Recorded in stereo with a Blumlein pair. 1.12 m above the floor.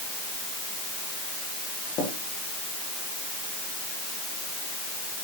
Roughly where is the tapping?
Ahead left.